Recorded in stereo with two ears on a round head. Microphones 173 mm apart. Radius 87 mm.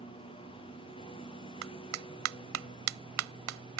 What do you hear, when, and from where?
0.0 s a lawn mower: 25° left (ahead or behind)
1.6 s a clap: 75° right (ahead or behind)